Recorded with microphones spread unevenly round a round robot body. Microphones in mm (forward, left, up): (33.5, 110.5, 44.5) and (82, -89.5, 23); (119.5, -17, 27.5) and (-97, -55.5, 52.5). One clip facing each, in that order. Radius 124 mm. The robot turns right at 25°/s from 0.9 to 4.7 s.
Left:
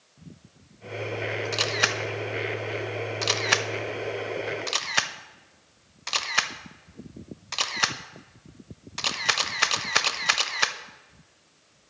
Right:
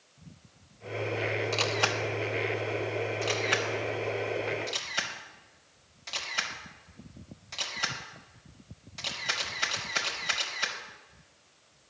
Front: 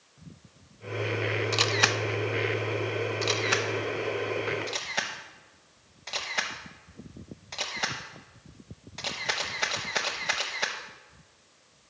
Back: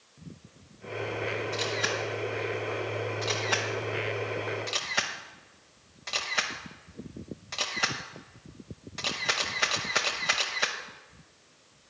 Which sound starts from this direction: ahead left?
A camera shutter, at 1.5 s.